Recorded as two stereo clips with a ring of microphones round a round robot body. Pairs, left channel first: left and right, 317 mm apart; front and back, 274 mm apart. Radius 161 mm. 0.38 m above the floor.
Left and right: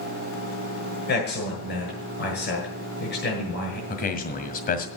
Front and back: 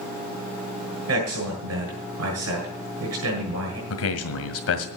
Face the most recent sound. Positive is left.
turn(degrees=30)